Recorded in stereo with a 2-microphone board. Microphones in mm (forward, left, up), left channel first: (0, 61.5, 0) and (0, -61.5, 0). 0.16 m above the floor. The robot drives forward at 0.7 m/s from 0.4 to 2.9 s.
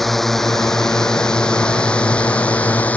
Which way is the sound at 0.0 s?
Centre (ahead or behind).